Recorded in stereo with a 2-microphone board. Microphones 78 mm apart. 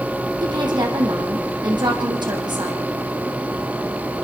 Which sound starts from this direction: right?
A woman speaking, at 0.4 s.